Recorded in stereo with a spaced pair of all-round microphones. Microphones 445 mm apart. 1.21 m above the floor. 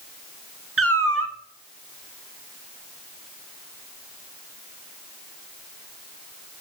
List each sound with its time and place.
0.8 s a cat meowing: 30° right (ahead or behind), 0.6 m